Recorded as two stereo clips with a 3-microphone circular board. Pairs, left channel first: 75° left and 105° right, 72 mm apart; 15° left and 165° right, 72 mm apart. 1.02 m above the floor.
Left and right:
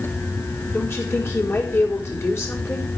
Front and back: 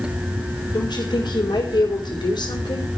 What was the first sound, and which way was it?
A woman speaking, 15° left.